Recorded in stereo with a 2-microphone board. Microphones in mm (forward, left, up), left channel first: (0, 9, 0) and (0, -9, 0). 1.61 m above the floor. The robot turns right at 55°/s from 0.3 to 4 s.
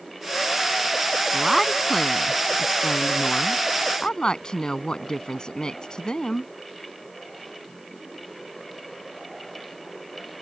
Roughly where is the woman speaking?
Ahead.